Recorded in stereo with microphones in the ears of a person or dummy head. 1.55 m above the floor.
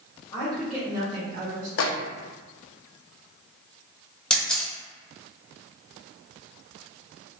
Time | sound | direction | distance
0.3 | a woman speaking | 20° left (ahead or behind) | 1.3 m
1.8 | a microwave | 75° left (ahead or behind) | 0.6 m
4.3 | a camera shutter | 5° left (ahead or behind) | 0.7 m